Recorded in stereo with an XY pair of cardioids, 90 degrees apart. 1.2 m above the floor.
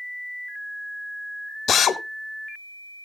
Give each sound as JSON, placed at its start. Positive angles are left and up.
{"t": 1.7, "sound": "a drill", "azimuth_deg": 70, "distance_m": 1.0}